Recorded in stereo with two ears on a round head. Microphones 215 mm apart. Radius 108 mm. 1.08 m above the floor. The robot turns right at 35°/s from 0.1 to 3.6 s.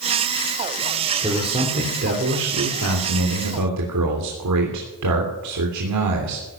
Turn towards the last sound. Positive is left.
turn(degrees=-80)